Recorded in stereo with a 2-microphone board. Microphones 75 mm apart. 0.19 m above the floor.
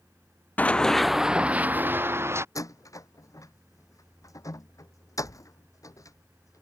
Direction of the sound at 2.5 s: 45° left (ahead or behind).